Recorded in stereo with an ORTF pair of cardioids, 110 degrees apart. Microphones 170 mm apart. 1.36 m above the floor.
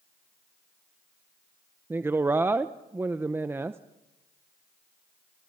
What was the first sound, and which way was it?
A woman speaking, 15° right.